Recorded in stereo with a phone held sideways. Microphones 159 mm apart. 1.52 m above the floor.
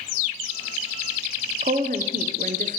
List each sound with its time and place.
1.6 s a woman speaking: 55° right (ahead or behind), 0.7 m